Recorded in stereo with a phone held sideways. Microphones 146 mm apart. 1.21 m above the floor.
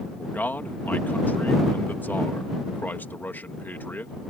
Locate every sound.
0.2 s a man speaking: 15° left (ahead or behind)